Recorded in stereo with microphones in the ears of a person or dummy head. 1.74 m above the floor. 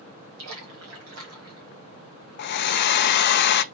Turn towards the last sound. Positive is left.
turn(degrees=55)  # may be behind; listen again after turning